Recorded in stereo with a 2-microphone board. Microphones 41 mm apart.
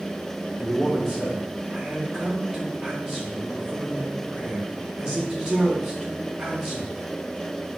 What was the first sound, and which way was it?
A man speaking, 15° right (ahead or behind).